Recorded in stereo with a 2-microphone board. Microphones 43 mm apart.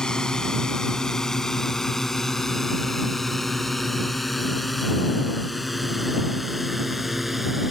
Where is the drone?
20° left (ahead or behind); by 7.7 s 5° right (ahead or behind).